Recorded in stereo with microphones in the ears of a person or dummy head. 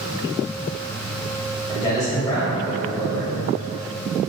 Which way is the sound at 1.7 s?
20° left (ahead or behind).